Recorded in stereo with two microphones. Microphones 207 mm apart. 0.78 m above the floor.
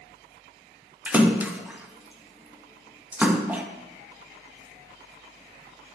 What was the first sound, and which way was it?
A splash, 10° right (ahead or behind).